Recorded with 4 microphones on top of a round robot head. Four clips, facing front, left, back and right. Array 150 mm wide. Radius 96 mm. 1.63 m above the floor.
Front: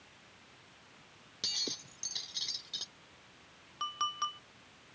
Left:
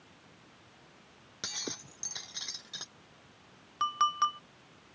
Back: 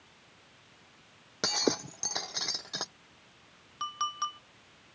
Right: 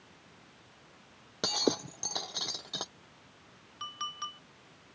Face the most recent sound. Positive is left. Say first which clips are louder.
# left 13 dB, back 2 dB
turn(degrees=95)